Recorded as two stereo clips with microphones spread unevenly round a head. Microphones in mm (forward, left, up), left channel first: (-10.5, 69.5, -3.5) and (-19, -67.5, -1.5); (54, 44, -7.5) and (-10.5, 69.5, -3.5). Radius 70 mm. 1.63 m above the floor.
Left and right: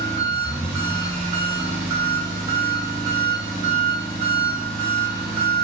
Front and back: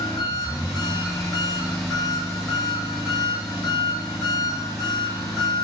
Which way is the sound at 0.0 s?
130° right.